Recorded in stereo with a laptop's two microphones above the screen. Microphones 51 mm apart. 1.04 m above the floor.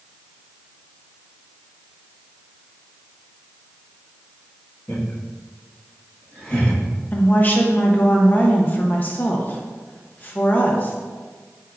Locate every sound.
4.9 s laughter: 55° left (ahead or behind), 1.7 m; by 6.8 s 20° left (ahead or behind), 1.7 m
7.1 s a woman speaking: 35° left (ahead or behind), 0.9 m